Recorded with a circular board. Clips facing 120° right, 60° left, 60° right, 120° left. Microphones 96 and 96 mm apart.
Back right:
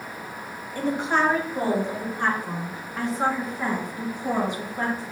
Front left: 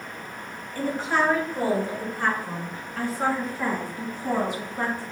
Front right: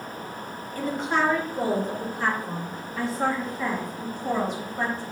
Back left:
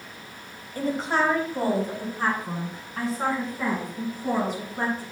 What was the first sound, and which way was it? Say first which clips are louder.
A woman speaking: back right 1 dB, back left 1 dB; 170° left.